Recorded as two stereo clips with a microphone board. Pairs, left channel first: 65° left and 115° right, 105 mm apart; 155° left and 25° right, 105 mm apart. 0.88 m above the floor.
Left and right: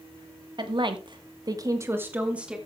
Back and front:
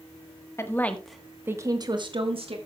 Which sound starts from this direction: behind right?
A woman speaking, at 0.6 s.